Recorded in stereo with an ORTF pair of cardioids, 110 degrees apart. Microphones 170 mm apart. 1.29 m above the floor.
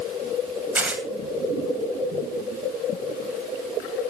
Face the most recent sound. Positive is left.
turn(degrees=-10)